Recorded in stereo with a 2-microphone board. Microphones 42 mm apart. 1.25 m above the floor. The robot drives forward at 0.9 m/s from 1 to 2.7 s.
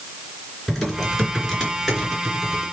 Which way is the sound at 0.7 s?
5° right (ahead or behind).